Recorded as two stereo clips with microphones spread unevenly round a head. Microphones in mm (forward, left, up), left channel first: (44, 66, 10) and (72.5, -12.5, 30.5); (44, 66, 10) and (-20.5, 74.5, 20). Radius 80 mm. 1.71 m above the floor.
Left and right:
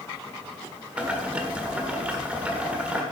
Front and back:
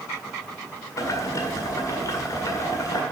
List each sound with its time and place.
1.0 s boiling: 25° right, 1.6 m